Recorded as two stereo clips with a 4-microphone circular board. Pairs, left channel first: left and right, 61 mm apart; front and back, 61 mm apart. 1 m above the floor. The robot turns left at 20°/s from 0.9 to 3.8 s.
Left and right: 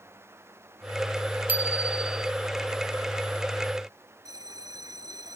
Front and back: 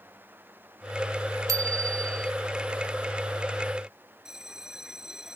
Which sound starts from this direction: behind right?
A bicycle bell, at 1.5 s.